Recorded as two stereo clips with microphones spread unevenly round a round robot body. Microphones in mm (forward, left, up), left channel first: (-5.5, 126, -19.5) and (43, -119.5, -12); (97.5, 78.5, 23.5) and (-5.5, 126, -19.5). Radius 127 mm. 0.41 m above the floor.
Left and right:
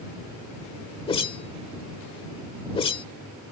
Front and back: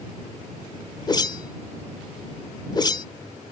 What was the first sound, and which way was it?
A whoosh, 40° left.